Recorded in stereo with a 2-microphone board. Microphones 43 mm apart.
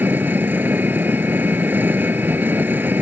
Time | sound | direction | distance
0.0 | an engine running | 50° right (ahead or behind) | ?